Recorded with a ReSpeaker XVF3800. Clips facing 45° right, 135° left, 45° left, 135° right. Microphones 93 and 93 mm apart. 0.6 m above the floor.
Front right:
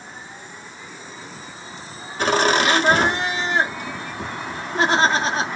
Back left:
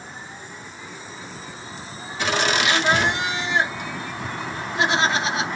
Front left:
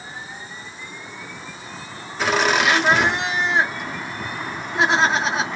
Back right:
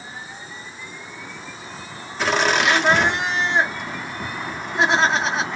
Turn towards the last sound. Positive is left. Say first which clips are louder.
# front right 4 dB, even
turn(degrees=-45)